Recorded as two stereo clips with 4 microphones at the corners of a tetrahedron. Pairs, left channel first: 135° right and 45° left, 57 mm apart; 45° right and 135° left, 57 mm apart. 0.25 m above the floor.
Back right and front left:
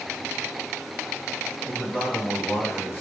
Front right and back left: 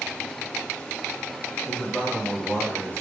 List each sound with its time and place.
1.6 s a man speaking: 90° right, 2 m